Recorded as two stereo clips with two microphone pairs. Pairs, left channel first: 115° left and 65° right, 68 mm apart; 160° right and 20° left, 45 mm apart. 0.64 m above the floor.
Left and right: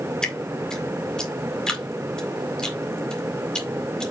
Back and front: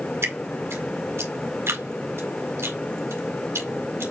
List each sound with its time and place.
0.2 s dripping: 35° left, 1.9 m